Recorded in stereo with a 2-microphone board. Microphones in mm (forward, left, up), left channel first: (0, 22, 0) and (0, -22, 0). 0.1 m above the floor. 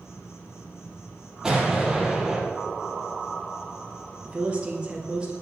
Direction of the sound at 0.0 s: 75° left (ahead or behind).